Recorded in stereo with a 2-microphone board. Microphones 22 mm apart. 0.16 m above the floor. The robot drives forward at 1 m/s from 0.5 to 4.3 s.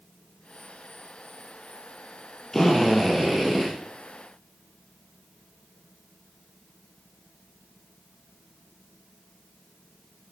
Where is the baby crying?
No baby crying in this recording.